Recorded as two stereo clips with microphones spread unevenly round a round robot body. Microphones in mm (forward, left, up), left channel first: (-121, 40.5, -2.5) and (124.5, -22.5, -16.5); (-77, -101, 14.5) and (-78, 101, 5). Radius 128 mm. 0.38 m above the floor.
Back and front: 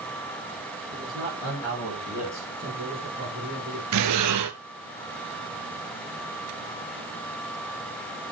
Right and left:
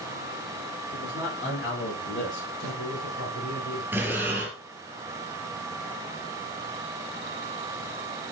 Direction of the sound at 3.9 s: 5° left.